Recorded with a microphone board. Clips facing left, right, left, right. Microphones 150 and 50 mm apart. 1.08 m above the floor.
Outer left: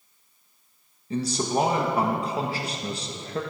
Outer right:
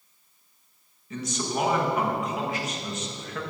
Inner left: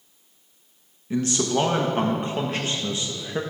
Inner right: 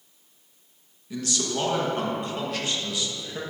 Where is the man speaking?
30° left (ahead or behind), 1.2 m.